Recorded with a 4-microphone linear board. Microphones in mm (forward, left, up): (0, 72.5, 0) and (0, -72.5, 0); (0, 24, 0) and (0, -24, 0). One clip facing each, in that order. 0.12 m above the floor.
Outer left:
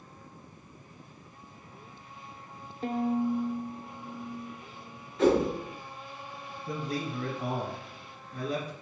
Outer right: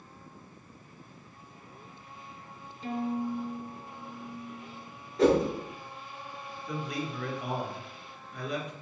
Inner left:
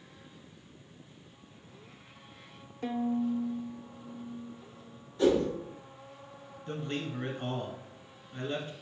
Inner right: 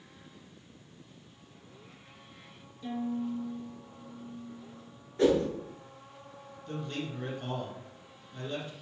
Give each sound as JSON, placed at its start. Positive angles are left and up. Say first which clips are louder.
{"t": 2.8, "sound": "a violin", "louder": "outer left 4 dB, inner left 3 dB", "side_deg": 60, "distance_m": 0.6}
{"t": 5.2, "sound": "a whoosh", "louder": "even, even", "side_deg": -40, "distance_m": 1.8}
{"t": 6.7, "sound": "a man speaking", "louder": "outer left 1 dB, inner left 1 dB", "side_deg": 35, "distance_m": 1.2}